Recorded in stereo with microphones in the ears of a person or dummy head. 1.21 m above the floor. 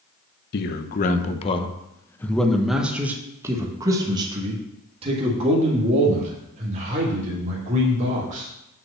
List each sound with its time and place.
0.5 s a man speaking: 55° left (ahead or behind), 1.1 m; by 8.5 s 45° right (ahead or behind), 3.5 m